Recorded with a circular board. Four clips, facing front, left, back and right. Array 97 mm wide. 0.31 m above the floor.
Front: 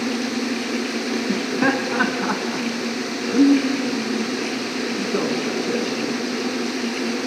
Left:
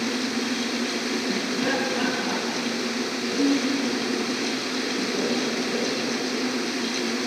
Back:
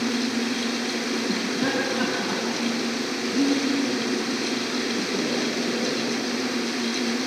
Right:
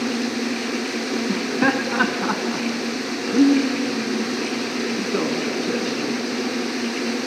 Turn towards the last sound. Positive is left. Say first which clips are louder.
# right 6 dB, front 7 dB
turn(degrees=-50)